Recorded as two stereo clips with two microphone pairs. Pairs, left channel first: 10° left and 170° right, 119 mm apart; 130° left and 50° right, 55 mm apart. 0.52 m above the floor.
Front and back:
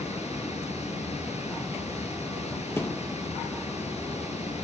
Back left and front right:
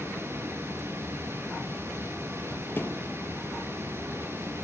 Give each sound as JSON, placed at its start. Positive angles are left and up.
{"t": 0.0, "sound": "running water", "azimuth_deg": -10, "distance_m": 7.5}
{"t": 2.8, "sound": "a thud", "azimuth_deg": 80, "distance_m": 3.0}